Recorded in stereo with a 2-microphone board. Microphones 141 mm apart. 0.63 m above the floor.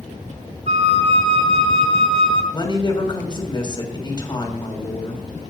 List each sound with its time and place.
0.7 s a flute: 55° right (ahead or behind), 2 m
2.5 s a woman speaking: 35° left (ahead or behind), 3.5 m